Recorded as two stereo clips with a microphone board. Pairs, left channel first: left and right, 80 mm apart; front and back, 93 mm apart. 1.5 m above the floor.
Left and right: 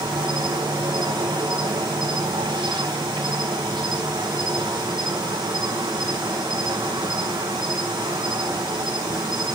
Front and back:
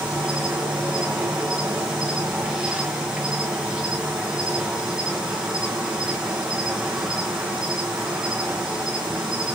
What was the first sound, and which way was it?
An insect, 100° right.